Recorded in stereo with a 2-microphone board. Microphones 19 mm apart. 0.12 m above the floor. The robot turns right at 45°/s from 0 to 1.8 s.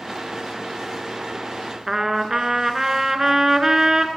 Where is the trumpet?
25° right (ahead or behind), 1.1 m.